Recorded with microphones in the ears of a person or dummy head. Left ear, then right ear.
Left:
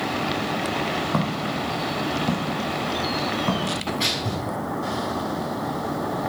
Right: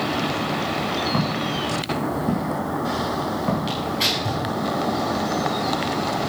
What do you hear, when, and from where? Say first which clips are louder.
1.1 s footsteps: right 2 dB; 20° left (ahead or behind), 2.5 m; by 4.5 s 10° left (ahead or behind), 4.5 m
3.7 s tearing paper: right 2 dB; 5° right (ahead or behind), 6.5 m